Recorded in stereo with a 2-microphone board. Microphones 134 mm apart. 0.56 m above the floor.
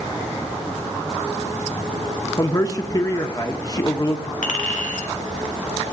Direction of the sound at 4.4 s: 80° left.